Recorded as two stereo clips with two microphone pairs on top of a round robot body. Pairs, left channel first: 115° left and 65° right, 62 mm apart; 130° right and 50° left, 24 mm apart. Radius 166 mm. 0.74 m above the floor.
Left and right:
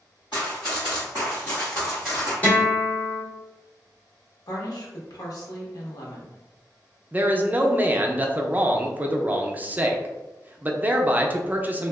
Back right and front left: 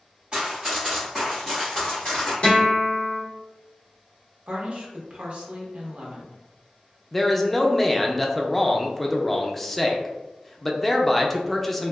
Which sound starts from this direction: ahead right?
A man speaking, at 7.1 s.